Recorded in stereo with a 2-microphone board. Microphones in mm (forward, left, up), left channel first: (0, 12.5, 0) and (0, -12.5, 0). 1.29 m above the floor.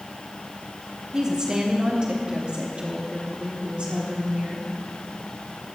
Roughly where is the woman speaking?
Right.